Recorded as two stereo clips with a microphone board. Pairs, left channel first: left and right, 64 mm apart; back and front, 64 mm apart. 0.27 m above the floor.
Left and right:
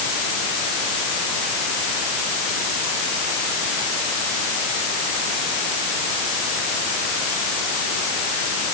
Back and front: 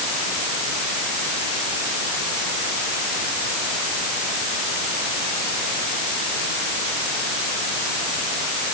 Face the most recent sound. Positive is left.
No sound to turn to.